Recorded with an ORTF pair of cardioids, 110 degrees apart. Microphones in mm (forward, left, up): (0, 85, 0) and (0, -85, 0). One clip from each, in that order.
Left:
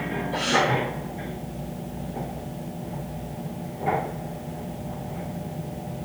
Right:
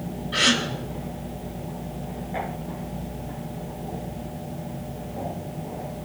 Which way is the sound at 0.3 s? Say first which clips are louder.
Right 2 dB; 65° right.